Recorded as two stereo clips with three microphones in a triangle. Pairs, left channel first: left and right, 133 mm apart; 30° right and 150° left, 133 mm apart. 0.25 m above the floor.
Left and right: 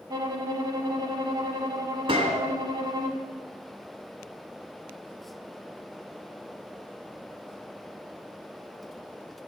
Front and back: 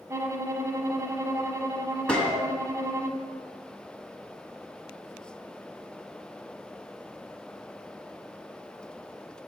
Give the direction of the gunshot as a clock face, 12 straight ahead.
4 o'clock.